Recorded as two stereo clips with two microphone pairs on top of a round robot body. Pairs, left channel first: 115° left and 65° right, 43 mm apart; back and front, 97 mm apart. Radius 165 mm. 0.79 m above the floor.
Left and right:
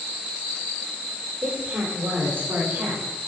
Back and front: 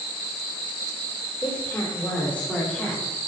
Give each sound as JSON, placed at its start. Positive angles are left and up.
{"t": 1.4, "sound": "a woman speaking", "azimuth_deg": -100, "distance_m": 2.5}